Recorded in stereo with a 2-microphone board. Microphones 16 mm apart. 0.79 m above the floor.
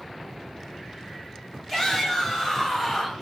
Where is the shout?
10° left (ahead or behind), 5.5 m; by 3.1 s 5° left (ahead or behind), 6 m.